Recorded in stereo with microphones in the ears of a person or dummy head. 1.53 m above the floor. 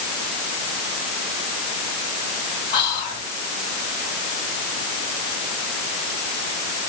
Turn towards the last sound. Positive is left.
turn(degrees=30)  # may be behind; listen again after turning